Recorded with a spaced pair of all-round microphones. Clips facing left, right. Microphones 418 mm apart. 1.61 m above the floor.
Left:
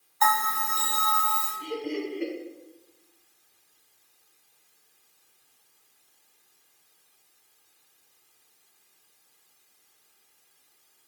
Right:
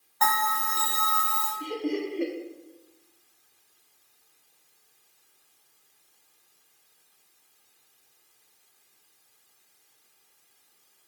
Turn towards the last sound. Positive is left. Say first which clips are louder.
# right 2 dB
turn(degrees=-55)  # may be behind; listen again after turning